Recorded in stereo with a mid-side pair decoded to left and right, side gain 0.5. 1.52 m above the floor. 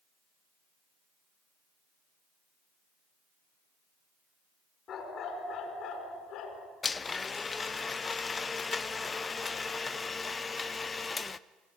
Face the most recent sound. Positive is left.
turn(degrees=30)